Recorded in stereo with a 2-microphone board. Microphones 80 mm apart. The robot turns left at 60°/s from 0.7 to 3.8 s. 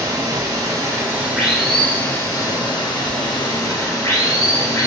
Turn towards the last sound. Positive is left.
turn(degrees=50)